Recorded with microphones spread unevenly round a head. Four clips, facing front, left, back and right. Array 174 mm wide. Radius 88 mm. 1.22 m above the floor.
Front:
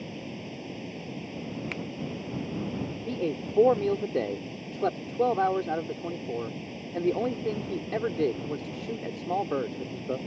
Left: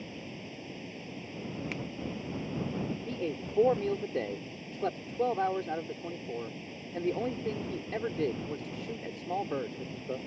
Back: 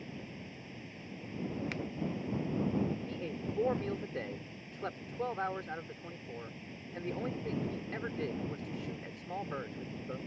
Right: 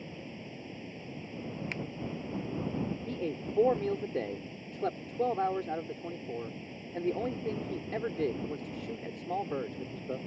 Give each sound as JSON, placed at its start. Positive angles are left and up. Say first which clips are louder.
{"t": 0.0, "sound": "running water", "louder": "left 1 dB, front 8 dB", "azimuth_deg": 5}
{"t": 1.7, "sound": "a finger snap", "louder": "left 1 dB, front 3 dB", "azimuth_deg": -5}
{"t": 3.1, "sound": "a man speaking", "louder": "even, front 9 dB", "azimuth_deg": 5}